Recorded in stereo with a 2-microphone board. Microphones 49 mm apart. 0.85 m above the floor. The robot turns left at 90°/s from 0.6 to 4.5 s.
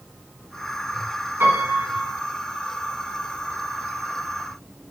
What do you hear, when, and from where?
1.4 s a piano: 110° right, 1.7 m; by 2.1 s 170° right, 1.7 m